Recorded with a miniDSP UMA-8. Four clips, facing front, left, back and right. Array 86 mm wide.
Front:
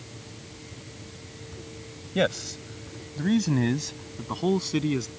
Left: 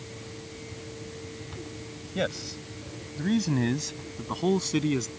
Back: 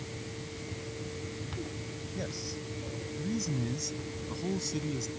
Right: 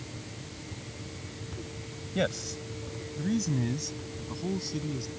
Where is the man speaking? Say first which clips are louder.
Even, front 14 dB; straight ahead; by 5.1 s 45° left.